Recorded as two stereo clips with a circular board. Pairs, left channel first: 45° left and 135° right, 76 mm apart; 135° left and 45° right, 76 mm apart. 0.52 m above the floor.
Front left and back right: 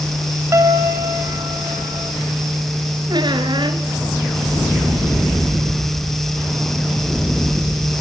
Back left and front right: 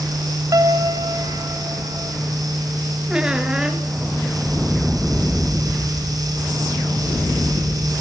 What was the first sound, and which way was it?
A piano, 85° right.